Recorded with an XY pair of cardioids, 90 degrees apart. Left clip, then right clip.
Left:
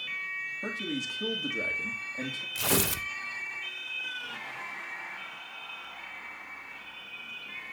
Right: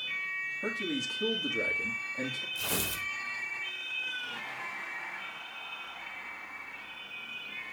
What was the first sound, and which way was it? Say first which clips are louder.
A man speaking: even; 5° left.